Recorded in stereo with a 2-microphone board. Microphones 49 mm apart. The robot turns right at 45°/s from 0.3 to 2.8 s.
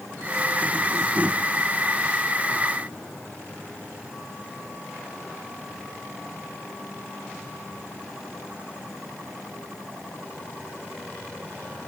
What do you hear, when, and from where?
Only background noise.